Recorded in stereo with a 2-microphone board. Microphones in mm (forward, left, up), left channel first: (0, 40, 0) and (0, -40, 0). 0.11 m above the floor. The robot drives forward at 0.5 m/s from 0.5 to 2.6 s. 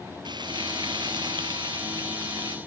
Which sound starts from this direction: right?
Frying, at 0.2 s.